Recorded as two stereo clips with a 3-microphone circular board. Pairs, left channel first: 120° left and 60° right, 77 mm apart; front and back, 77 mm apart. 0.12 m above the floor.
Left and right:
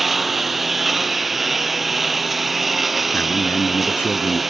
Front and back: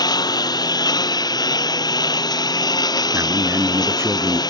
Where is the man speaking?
165° left.